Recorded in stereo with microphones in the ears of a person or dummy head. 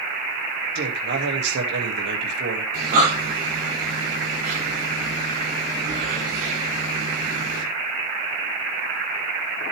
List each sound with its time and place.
0.8 s a man speaking: 60° right (ahead or behind), 2 m
2.7 s breathing: 50° right (ahead or behind), 6.5 m